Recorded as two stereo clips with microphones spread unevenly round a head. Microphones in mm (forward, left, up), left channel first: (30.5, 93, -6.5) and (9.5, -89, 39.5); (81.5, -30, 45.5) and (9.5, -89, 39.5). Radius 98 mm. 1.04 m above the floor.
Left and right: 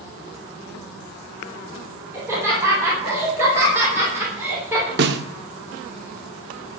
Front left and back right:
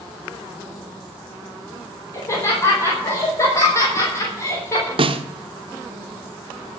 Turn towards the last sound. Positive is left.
turn(degrees=-120)